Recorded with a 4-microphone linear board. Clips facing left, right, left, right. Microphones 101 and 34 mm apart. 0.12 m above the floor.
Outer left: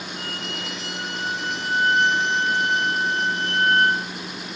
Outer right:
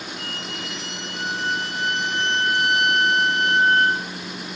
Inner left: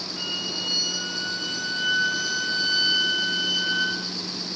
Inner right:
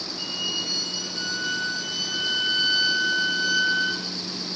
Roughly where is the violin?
Left.